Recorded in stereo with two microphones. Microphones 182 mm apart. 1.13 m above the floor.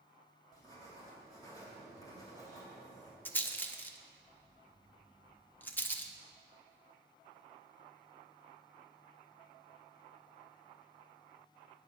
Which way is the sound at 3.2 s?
10° left (ahead or behind).